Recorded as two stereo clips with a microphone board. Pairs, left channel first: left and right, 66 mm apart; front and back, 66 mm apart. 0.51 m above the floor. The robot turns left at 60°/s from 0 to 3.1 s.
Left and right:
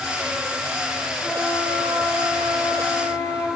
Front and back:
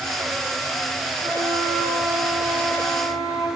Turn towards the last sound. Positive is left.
turn(degrees=50)